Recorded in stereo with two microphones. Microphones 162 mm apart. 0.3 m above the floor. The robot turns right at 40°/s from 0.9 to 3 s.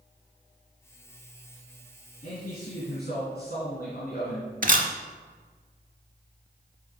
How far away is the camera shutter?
About 0.7 m.